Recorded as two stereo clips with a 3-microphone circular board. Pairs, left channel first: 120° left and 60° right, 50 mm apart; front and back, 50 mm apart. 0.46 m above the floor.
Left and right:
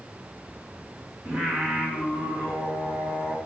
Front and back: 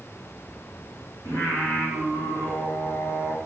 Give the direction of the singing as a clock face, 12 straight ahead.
12 o'clock.